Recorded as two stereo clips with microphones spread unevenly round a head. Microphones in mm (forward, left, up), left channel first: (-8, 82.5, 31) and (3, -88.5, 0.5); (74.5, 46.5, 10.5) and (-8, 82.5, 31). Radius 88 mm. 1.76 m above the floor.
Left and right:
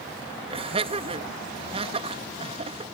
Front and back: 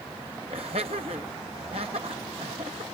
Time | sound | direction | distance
0.5 | laughter | 145° right | ?